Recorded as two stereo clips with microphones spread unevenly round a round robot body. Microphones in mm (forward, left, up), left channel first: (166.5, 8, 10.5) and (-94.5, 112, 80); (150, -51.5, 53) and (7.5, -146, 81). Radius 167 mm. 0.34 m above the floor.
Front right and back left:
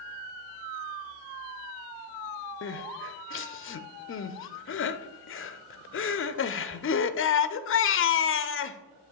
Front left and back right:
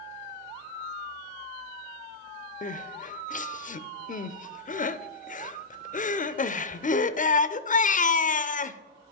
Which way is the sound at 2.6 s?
5° left.